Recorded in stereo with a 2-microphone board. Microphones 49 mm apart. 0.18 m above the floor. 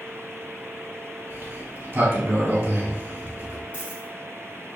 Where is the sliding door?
40° right (ahead or behind), 2.5 m.